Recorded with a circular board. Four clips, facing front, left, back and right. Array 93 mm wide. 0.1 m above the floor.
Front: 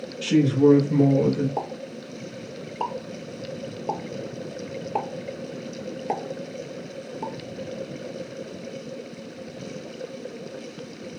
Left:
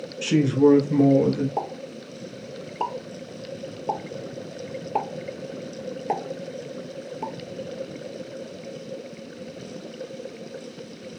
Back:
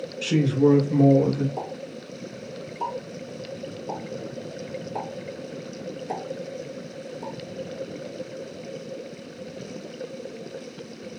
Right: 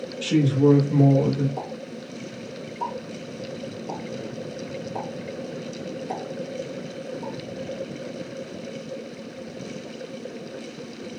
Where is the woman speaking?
100° left, 1.7 m; by 1.5 s 35° left, 1.8 m.